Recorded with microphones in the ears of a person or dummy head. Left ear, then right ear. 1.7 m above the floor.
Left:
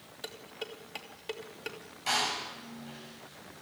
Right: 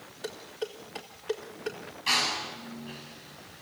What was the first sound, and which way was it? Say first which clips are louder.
Dishes clattering: right 5 dB; 35° left (ahead or behind).